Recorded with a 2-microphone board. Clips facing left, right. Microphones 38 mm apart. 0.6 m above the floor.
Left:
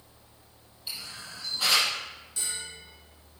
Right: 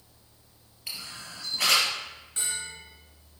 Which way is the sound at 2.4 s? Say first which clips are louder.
Right 3 dB; 45° right (ahead or behind).